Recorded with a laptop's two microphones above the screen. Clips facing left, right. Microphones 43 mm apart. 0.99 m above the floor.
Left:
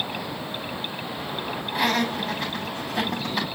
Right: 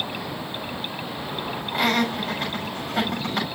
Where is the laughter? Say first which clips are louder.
Right 1 dB; 50° right (ahead or behind), 6 m.